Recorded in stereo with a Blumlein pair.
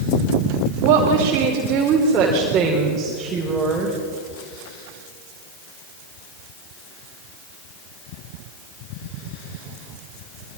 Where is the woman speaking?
40° right, 3 m; by 4.0 s 15° right, 4.5 m.